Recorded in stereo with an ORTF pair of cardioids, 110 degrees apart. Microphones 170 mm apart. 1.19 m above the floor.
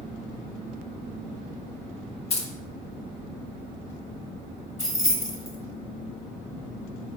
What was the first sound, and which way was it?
Keys jangling, 35° left.